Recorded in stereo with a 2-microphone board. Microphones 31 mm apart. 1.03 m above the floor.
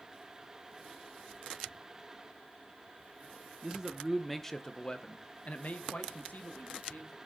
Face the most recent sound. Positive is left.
turn(degrees=60)  # may be behind; listen again after turning